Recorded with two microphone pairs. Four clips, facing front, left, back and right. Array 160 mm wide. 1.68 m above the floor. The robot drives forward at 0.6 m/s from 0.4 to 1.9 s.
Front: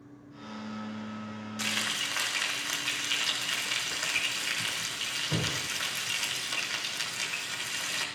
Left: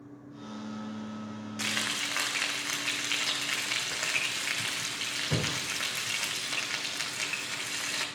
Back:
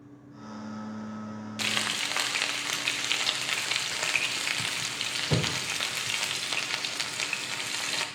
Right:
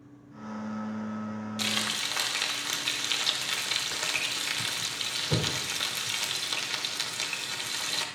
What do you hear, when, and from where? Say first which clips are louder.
1.6 s frying: right 1 dB, back 2 dB; 160° right, 0.6 m; by 8.1 s 165° right, 0.8 m